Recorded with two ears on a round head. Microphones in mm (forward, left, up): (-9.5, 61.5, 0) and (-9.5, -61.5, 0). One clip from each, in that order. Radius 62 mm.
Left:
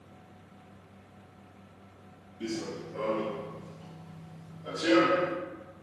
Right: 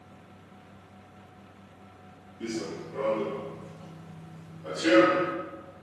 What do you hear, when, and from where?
2.4 s running footsteps: 15° left (ahead or behind), 1.6 m; by 5.3 s 35° right (ahead or behind), 1.8 m